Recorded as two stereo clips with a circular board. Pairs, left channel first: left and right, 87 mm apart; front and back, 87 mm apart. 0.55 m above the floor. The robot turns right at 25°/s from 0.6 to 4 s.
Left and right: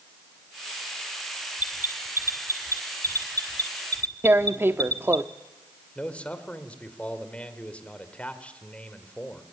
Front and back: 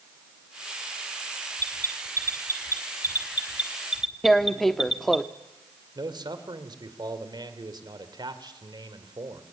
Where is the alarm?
160° right, 2 m; by 5.2 s 100° right, 2 m.